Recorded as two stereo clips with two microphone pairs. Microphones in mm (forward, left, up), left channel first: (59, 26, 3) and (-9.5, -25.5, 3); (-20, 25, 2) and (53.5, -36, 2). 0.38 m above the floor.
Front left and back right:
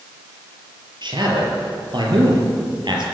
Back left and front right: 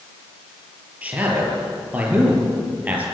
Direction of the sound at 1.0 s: 115° right.